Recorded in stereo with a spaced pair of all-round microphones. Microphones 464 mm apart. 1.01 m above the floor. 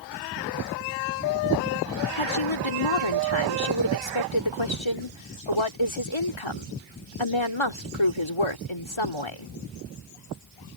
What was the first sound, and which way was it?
A woman speaking, 85° left.